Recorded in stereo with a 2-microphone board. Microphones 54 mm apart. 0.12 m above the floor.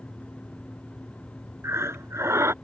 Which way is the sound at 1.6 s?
55° right (ahead or behind).